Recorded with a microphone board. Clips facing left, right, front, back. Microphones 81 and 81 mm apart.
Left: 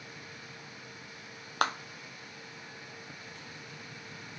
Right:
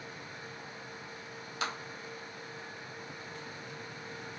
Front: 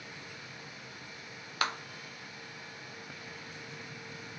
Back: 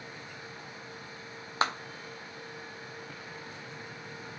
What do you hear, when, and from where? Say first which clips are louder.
1.6 s a clap: left 7 dB, back 4 dB; 120° left, 0.6 m